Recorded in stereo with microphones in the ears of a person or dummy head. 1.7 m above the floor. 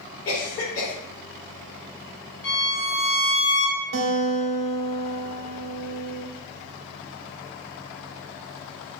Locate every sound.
0.2 s a cough: 65° left (ahead or behind), 1.8 m
2.4 s a violin: 55° left (ahead or behind), 2 m
3.9 s a guitar: 75° right (ahead or behind), 1.0 m